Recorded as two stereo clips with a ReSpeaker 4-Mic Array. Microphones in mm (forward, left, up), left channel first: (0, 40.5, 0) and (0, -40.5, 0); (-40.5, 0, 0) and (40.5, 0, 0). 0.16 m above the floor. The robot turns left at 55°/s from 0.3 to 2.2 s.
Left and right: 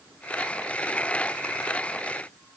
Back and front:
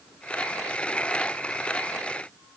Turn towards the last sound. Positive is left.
No sound to turn to.